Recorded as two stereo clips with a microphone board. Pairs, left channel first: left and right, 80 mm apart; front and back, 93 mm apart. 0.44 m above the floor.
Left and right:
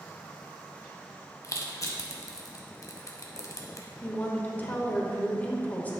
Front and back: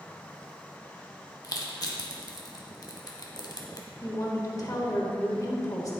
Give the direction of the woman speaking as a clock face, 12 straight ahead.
11 o'clock.